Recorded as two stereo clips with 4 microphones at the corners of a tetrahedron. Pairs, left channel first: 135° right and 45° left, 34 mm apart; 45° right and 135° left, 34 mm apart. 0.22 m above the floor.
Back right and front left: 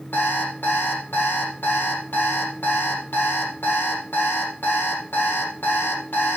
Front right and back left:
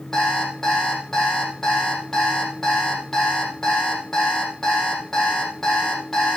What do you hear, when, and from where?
0.1 s an alarm clock: 125° right, 4.5 m